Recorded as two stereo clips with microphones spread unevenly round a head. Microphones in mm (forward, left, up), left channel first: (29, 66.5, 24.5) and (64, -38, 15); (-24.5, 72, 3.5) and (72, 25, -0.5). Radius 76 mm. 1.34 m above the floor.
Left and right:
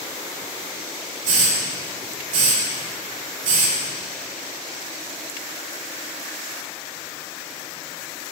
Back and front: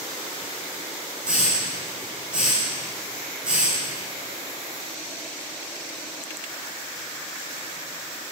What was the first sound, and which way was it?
A hiss, 110° right.